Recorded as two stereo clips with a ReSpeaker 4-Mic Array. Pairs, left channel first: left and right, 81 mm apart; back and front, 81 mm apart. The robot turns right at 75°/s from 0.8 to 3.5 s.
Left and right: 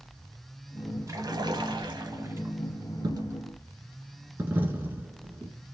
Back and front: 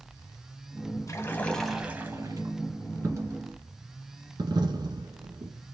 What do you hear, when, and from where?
1.1 s a splash: 135° right, 0.9 m; by 2.5 s 25° right, 0.9 m
3.0 s a dropped coin: 60° right, 1.2 m; by 5.7 s 25° right, 1.2 m